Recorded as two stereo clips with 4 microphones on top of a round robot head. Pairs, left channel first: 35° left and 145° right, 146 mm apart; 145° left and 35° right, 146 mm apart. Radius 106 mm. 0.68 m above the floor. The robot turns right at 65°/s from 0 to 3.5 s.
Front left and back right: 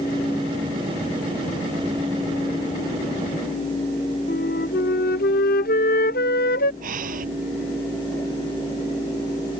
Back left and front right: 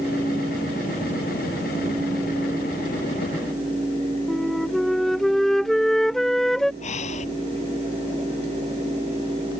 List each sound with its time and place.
4.3 s a flute: 55° left
6.8 s breathing: 175° right